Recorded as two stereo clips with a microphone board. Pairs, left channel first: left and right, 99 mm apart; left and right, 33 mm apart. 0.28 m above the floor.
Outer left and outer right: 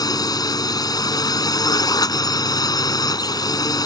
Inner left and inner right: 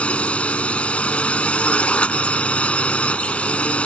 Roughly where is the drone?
Left.